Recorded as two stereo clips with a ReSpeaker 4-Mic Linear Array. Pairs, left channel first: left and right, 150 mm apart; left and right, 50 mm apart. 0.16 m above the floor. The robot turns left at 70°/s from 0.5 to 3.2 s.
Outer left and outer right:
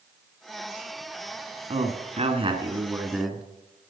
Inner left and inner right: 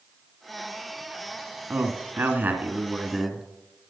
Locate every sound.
1.7 s a man speaking: 70° right, 1.4 m; by 3.4 s 175° right, 1.4 m